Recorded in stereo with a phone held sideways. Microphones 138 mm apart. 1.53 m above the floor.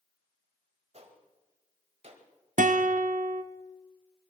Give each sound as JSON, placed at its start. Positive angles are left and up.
{"t": 0.9, "sound": "a gunshot", "side_deg": -50, "distance_m": 1.9}
{"t": 2.6, "sound": "a guitar", "side_deg": -70, "distance_m": 0.7}